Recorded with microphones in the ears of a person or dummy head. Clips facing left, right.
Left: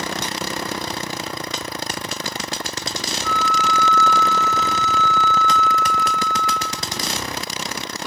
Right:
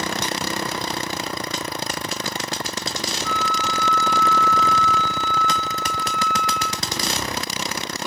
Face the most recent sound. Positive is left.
turn(degrees=-15)  # may be behind; listen again after turning